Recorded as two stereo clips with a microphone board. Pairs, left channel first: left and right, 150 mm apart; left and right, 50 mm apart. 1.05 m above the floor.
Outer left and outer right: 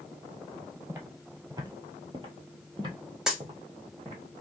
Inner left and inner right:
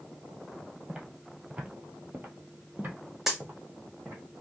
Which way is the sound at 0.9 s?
15° right (ahead or behind).